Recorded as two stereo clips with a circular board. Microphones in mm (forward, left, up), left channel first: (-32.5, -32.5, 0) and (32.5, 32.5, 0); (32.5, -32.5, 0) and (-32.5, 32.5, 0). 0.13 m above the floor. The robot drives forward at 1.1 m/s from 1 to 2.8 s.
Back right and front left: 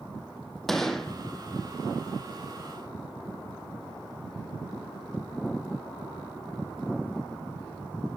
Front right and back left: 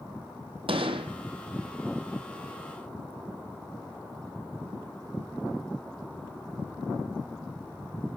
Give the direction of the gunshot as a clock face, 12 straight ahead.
7 o'clock.